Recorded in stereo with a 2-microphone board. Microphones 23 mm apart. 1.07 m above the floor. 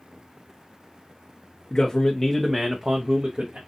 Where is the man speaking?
45° left (ahead or behind), 0.9 m; by 3.6 s 60° right (ahead or behind), 0.9 m.